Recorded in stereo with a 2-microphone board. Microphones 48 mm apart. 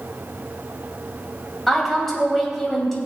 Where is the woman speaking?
5° left (ahead or behind), 3 m.